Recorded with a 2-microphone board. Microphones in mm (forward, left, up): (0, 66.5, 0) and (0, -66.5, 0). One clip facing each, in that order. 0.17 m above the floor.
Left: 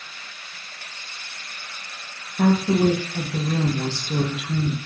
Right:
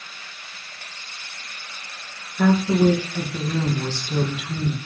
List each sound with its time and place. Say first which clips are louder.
2.4 s a woman speaking: right 1 dB; 40° left (ahead or behind), 2 m